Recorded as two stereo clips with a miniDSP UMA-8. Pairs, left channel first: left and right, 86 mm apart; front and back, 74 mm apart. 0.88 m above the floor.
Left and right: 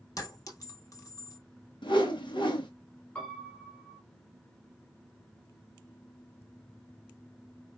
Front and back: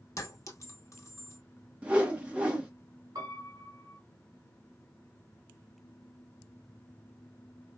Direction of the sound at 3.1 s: 160° left.